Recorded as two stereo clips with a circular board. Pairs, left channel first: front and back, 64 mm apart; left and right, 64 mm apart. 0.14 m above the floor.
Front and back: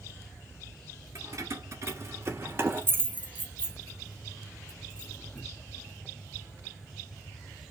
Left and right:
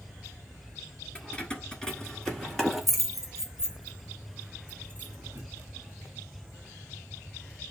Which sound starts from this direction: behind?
Keys jangling, at 1.1 s.